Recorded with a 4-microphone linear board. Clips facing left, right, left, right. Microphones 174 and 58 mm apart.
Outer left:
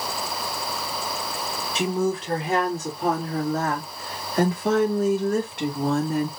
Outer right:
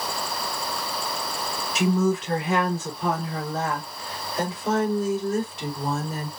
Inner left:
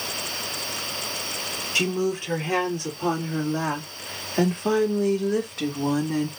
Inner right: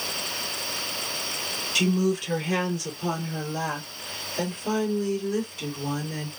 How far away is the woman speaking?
About 3 m.